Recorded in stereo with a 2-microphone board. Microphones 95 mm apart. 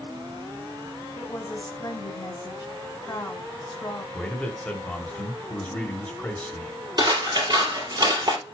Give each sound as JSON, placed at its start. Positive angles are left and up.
{"t": 1.2, "sound": "a woman speaking", "side_deg": 45, "distance_m": 2.0}
{"t": 4.1, "sound": "a man speaking", "side_deg": 15, "distance_m": 1.2}
{"t": 7.0, "sound": "scissors", "side_deg": -40, "distance_m": 3.5}